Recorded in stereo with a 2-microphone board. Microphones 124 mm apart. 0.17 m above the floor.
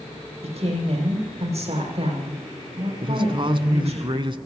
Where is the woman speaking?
60° right (ahead or behind), 6.5 m.